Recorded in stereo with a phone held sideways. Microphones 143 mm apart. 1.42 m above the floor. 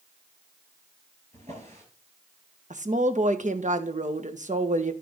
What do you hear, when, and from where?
1.3 s a drawer: 50° right (ahead or behind), 7.5 m
2.7 s a woman speaking: 60° right (ahead or behind), 1.3 m